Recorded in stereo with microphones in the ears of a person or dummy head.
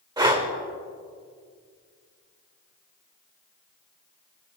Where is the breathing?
25° right (ahead or behind), 1.9 m.